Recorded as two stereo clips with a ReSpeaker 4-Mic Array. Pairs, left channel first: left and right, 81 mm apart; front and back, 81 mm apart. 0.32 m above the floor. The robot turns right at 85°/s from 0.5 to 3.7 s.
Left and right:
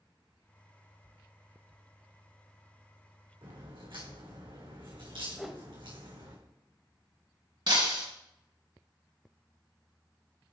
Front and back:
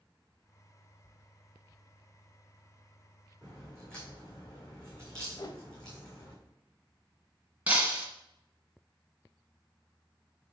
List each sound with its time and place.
3.4 s a crack: 105° right, 4 m; by 6.3 s 80° right, 4 m
5.3 s a whoosh: 5° right, 0.6 m
7.7 s breaking glass: 110° right, 1.6 m